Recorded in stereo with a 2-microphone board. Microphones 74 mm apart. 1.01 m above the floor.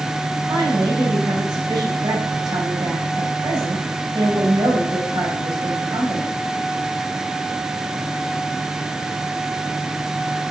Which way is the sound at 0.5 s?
85° right.